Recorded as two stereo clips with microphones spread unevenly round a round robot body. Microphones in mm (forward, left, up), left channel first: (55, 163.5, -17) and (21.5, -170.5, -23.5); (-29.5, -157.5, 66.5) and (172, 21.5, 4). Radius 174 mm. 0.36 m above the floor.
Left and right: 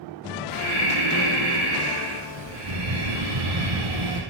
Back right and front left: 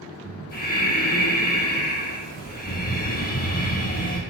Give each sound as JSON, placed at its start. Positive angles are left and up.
{"t": 0.5, "sound": "breathing", "azimuth_deg": -80, "distance_m": 2.5}